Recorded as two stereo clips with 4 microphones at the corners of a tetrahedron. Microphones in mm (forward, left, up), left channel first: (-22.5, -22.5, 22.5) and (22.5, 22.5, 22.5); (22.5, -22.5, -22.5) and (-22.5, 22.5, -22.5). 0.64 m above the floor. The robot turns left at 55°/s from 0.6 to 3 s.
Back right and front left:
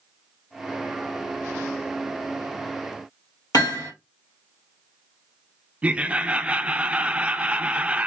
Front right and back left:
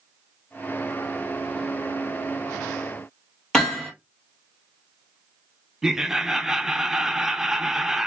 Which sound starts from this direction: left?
Laughter, at 5.8 s.